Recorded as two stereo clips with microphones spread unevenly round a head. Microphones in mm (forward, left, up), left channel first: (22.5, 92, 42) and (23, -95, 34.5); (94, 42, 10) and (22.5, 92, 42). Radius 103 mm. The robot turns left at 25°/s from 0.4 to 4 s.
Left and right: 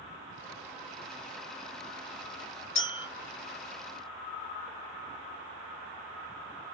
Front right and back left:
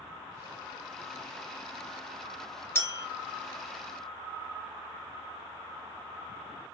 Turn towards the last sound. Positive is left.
turn(degrees=10)